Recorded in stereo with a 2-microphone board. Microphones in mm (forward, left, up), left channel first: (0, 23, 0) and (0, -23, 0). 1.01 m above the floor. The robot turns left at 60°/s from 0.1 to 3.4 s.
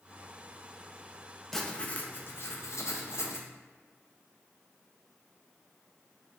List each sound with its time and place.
1.5 s writing: 175° left, 0.5 m; by 3.5 s 65° left, 0.5 m